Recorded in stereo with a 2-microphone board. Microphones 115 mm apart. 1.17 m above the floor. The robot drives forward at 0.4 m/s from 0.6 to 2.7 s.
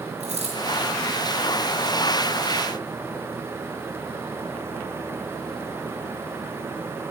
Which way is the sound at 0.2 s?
70° right (ahead or behind).